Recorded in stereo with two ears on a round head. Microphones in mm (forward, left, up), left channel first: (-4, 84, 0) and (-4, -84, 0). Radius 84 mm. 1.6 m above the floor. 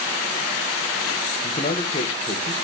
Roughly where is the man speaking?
Left.